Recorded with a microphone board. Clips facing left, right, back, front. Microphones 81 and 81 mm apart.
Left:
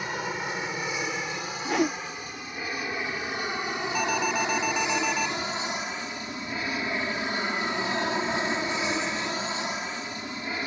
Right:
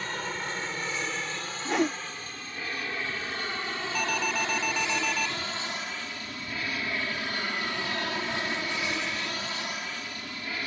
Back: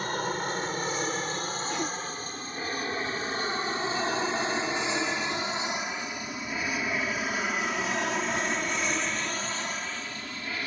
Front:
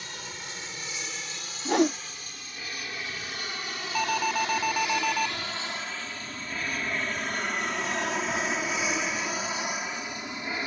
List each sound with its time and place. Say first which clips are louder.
0.0 s an aircraft: left 3 dB, back 12 dB; 165° left; by 10.7 s 45° left
1.6 s a whoosh: left 1 dB, front 13 dB; straight ahead
4.0 s an alarm: left 3 dB, front 6 dB; 10° left